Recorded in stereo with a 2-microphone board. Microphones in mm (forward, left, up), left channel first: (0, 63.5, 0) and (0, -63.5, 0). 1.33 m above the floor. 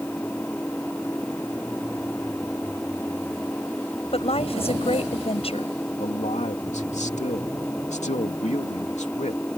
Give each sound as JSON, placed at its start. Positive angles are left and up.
{"t": 0.0, "sound": "an engine running", "side_deg": 10}
{"t": 4.1, "sound": "a woman speaking", "side_deg": 50}
{"t": 6.0, "sound": "a man speaking", "side_deg": 65}